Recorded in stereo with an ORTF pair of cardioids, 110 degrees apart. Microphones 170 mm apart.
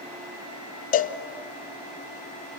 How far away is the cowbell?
About 1.0 m.